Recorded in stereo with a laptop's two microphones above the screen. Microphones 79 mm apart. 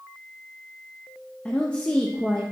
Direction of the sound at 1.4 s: 15° left (ahead or behind).